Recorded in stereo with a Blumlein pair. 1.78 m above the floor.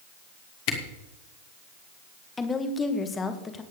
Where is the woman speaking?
15° left, 1.7 m.